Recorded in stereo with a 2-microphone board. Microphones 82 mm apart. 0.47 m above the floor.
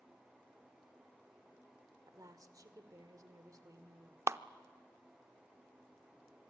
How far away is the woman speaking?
About 1.8 m.